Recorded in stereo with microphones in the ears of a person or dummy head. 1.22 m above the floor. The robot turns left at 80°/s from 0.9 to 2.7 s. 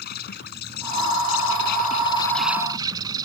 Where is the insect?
125° left; by 3.2 s 20° right.